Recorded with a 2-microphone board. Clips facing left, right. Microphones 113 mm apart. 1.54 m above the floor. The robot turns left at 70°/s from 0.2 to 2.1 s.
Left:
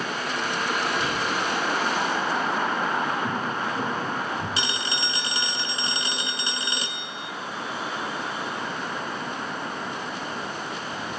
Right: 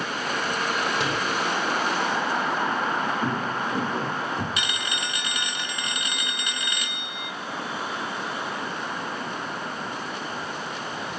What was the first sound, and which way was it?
A door slam, 85° right.